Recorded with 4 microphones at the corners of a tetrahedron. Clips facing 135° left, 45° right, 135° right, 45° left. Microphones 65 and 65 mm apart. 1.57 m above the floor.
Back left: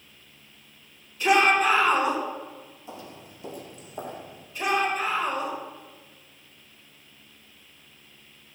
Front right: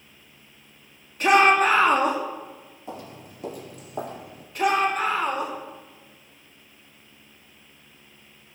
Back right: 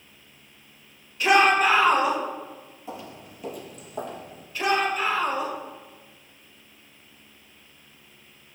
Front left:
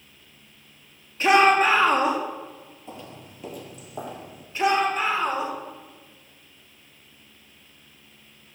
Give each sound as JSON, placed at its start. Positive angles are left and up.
{"t": 1.2, "sound": "a shout", "azimuth_deg": -10, "distance_m": 3.0}
{"t": 2.9, "sound": "footsteps", "azimuth_deg": -50, "distance_m": 2.5}
{"t": 4.5, "sound": "a shout", "azimuth_deg": -20, "distance_m": 4.5}